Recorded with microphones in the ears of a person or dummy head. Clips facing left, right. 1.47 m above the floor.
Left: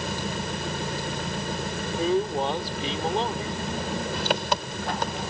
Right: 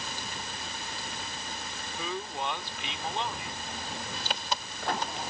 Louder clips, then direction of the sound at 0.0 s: Left 10 dB; 55° left (ahead or behind).